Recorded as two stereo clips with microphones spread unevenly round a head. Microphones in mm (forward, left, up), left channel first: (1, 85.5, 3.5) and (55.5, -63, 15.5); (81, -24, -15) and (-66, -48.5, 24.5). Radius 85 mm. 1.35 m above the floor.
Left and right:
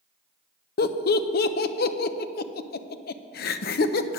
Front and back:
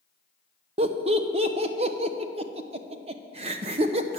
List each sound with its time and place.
0.8 s laughter: 130° left, 0.5 m